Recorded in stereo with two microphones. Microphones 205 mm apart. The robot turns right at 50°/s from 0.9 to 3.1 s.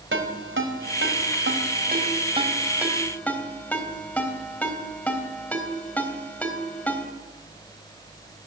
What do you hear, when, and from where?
0.1 s a ringtone: 75° right (ahead or behind), 4 m; by 7.1 s 10° left (ahead or behind), 4 m